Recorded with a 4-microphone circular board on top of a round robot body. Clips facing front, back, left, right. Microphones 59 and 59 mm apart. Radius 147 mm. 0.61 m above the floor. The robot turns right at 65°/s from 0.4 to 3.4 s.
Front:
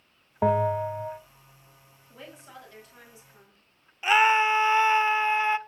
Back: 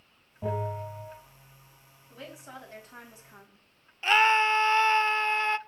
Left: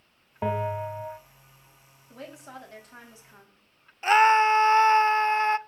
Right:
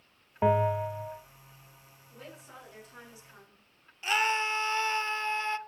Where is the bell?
10° right, 1.0 m; by 1.2 s 40° left, 1.0 m.